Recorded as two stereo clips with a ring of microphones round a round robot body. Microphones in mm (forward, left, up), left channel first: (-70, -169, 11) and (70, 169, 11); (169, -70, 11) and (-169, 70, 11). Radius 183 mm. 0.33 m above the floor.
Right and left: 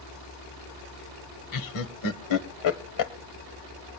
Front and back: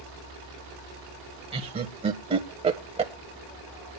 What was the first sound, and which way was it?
Laughter, 130° right.